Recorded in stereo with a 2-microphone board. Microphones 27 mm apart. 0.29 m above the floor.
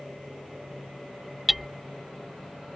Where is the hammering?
5° right (ahead or behind).